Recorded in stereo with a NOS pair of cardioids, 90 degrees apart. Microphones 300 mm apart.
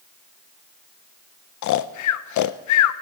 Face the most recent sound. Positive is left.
turn(degrees=65)